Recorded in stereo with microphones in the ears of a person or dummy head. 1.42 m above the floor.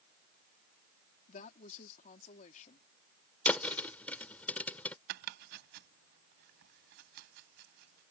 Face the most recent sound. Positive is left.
turn(degrees=-60)  # may be behind; listen again after turning